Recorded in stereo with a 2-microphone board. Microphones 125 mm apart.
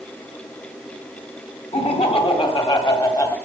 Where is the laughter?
50° left (ahead or behind), 2.5 m; by 3.4 s 25° left (ahead or behind), 1.7 m.